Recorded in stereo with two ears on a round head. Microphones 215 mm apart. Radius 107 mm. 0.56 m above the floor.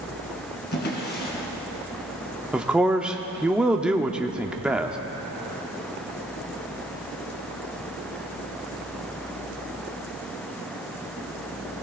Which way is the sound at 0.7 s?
45° left (ahead or behind).